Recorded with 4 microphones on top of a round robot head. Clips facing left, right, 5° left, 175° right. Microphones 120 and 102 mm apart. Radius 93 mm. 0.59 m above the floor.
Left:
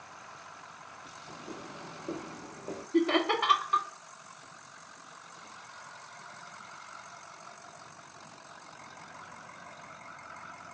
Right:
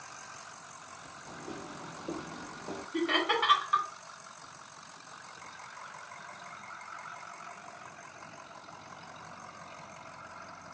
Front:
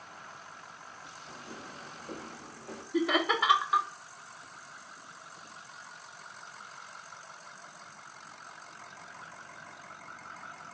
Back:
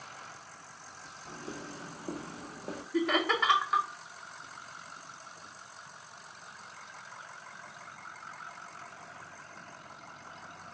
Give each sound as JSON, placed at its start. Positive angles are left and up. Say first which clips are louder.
{"t": 1.2, "sound": "footsteps", "louder": "right 1 dB, back 5 dB", "azimuth_deg": -155, "distance_m": 1.4}
{"t": 2.9, "sound": "laughter", "louder": "left 4 dB, front 1 dB", "azimuth_deg": 85, "distance_m": 0.6}